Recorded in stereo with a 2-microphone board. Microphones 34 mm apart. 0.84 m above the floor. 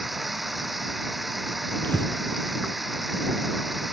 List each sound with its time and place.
0.0 s running water: centre (ahead or behind)
1.8 s breathing: 60° left (ahead or behind)